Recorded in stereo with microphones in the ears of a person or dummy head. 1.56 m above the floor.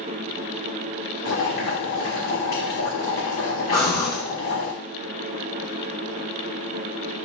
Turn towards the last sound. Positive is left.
turn(degrees=25)  # may be behind; listen again after turning